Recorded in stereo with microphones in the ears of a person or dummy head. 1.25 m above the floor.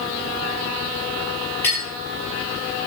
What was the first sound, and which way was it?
A clink, 10° left (ahead or behind).